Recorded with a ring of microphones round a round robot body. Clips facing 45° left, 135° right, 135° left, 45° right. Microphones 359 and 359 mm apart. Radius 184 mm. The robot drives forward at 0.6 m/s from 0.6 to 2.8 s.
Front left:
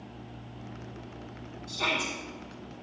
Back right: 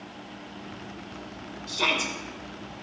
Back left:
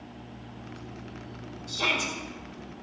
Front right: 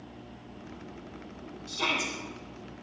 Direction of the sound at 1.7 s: 115° right.